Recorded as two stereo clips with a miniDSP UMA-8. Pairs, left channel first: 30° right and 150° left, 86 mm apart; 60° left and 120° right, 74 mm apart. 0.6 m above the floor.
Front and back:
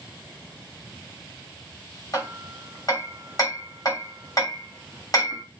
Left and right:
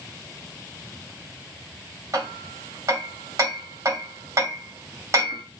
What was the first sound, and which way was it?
Hammering, 80° right.